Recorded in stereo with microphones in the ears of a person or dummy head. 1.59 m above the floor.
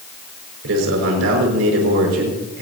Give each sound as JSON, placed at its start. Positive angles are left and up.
{"t": 0.6, "sound": "a man speaking", "side_deg": -75, "distance_m": 5.5}